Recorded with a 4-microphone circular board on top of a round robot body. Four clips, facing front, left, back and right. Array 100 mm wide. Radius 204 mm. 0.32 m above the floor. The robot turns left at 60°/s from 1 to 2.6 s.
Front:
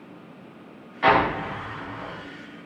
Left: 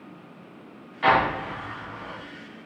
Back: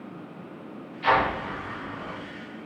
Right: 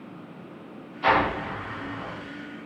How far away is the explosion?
About 6.5 m.